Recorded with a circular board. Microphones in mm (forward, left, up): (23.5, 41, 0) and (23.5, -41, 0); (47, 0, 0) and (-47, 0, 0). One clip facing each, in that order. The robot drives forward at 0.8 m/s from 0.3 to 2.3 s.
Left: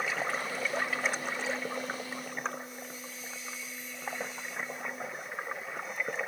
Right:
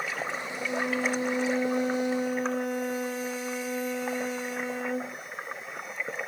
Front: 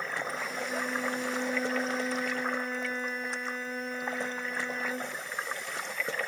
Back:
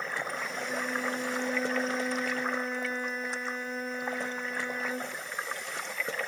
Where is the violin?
90° right; by 5.2 s 95° right.